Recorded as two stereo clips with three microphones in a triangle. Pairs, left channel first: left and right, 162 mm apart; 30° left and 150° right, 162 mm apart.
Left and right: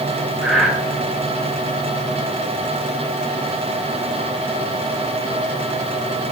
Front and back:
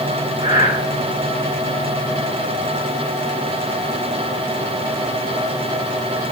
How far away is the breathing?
About 1.6 m.